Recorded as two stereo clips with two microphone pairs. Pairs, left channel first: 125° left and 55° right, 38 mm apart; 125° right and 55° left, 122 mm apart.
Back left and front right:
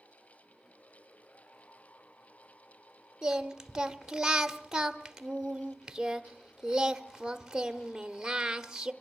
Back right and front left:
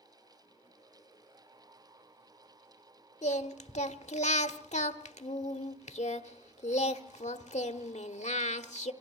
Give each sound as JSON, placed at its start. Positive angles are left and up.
{"t": 3.2, "sound": "singing", "azimuth_deg": -130, "distance_m": 0.9}